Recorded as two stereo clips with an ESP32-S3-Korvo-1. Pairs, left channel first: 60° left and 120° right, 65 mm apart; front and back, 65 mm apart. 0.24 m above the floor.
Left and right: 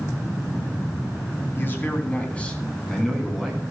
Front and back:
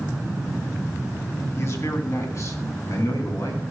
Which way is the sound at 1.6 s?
20° left.